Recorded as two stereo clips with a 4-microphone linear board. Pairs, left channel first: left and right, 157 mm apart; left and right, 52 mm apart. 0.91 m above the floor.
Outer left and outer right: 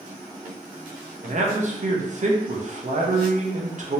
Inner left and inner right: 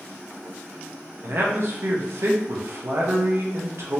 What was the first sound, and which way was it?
A man speaking, 50° right (ahead or behind).